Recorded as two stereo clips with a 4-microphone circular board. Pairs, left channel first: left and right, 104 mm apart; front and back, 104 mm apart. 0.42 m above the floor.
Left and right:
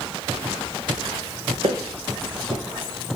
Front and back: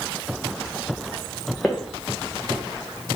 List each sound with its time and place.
1.6 s footsteps: 80° right, 1.1 m